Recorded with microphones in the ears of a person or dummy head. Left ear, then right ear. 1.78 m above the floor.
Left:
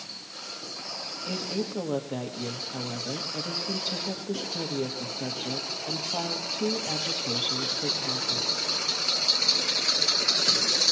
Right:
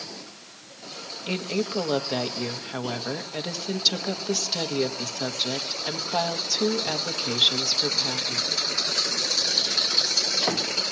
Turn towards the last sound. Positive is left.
turn(degrees=-65)  # may be behind; listen again after turning